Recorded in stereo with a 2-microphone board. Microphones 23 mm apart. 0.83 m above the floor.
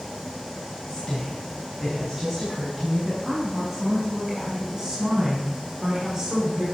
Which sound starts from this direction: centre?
A woman speaking, at 0.9 s.